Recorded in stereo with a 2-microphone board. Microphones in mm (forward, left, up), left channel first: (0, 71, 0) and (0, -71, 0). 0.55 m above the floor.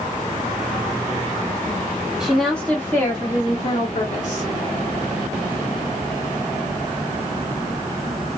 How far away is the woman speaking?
About 1.1 m.